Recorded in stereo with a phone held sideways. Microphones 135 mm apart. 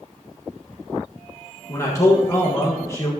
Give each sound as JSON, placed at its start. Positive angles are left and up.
{"t": 1.7, "sound": "a man speaking", "side_deg": 25, "distance_m": 1.4}